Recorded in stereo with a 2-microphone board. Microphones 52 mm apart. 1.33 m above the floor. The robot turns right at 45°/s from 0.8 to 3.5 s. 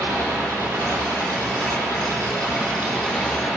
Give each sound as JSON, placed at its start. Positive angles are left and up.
{"t": 0.0, "sound": "an engine running", "azimuth_deg": -115, "distance_m": 9.0}